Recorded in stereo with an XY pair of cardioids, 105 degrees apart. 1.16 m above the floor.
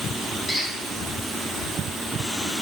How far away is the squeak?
About 1.8 m.